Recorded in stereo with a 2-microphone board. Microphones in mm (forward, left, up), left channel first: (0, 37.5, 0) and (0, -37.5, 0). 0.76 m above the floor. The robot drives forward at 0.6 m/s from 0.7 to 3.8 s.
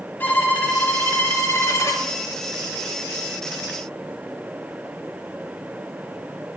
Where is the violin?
25° left (ahead or behind), 1.4 m; by 2.1 s 45° left (ahead or behind), 0.8 m.